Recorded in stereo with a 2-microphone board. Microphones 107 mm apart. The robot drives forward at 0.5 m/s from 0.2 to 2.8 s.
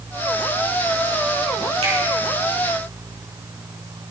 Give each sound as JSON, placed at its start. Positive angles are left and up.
{"t": 1.8, "sound": "a finger snap", "side_deg": -70, "distance_m": 4.0}